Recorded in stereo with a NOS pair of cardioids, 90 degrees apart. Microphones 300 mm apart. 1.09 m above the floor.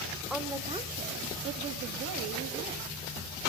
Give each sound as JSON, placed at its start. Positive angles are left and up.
{"t": 0.3, "sound": "a woman speaking", "azimuth_deg": 0, "distance_m": 0.8}